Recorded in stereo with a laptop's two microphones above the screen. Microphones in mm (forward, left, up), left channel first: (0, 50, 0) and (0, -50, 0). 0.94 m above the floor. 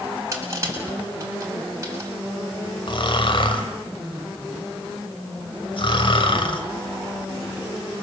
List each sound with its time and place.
0.3 s crushing: 30° right (ahead or behind), 7 m
2.9 s snoring: 60° left (ahead or behind), 2.5 m